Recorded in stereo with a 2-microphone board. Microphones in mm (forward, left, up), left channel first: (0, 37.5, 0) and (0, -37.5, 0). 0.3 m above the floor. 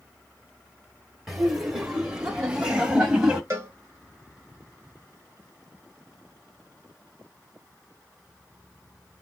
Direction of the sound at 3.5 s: 40° right (ahead or behind).